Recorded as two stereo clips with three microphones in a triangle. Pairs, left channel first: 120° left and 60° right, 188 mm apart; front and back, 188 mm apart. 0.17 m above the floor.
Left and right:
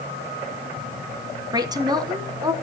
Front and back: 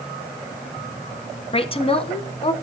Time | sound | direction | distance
1.5 | a woman speaking | 15° right | 1.3 m